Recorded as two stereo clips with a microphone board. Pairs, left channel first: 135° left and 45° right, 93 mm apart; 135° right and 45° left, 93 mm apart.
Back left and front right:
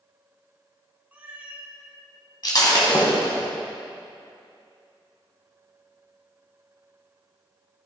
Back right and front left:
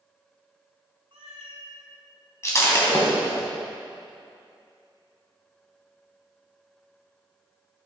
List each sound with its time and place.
1.1 s a cat meowing: 30° left, 0.8 m
2.4 s breaking glass: 170° left, 1.6 m